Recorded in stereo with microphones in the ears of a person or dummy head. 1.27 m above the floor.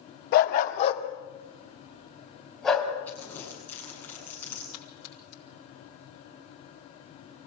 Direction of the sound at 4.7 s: 70° left (ahead or behind).